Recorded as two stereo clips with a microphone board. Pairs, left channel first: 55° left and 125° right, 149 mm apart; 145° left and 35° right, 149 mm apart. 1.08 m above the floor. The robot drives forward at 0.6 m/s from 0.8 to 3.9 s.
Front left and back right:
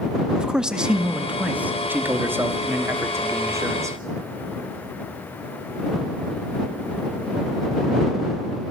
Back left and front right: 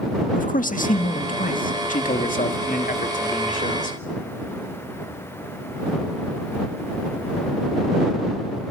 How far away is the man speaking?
About 1.8 m.